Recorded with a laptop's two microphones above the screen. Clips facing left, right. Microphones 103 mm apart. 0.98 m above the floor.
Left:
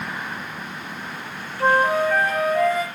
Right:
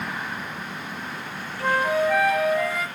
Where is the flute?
50° left (ahead or behind), 3 m.